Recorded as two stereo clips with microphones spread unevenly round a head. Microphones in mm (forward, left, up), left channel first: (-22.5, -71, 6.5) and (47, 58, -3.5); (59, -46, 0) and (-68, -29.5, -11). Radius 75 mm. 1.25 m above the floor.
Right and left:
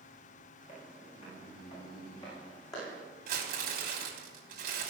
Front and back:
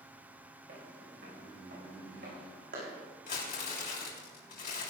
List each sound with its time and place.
0.7 s footsteps: 170° right, 7 m; by 3.0 s 175° left, 6 m
3.3 s crumpling: 40° left, 3.5 m